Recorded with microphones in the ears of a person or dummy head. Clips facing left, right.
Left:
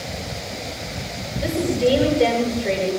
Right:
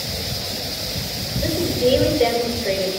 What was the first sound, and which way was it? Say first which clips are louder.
A woman speaking: even; centre (ahead or behind).